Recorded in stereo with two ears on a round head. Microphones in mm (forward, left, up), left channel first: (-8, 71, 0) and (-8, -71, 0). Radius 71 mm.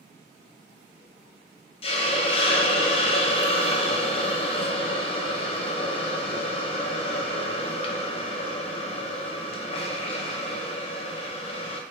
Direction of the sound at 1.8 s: 35° left (ahead or behind).